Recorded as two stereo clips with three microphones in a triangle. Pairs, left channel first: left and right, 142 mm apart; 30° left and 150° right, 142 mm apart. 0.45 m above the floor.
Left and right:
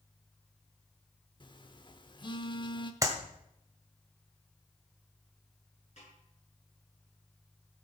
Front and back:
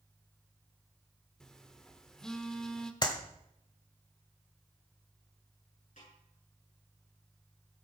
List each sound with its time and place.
1.4 s a phone buzzing: 115° left, 0.9 m
3.0 s a clap: 25° right, 1.5 m
6.0 s a snare drum: 55° left, 7.5 m